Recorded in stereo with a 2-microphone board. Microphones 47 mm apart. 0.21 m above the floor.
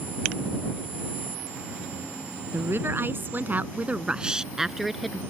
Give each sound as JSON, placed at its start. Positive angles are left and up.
{"t": 2.5, "sound": "a woman speaking", "side_deg": -60}